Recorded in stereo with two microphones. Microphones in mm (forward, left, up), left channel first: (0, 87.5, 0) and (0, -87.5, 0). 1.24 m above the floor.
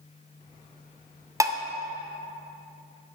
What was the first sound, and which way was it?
Dishes clattering, 15° right (ahead or behind).